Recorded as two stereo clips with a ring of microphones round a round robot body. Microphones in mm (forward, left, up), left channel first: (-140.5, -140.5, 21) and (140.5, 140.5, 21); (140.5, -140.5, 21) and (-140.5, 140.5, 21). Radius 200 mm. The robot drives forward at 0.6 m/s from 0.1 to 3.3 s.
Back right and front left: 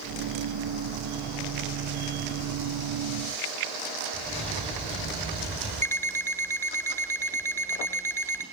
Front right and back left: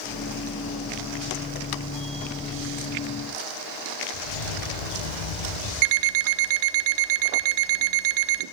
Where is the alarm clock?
140° left, 0.8 m.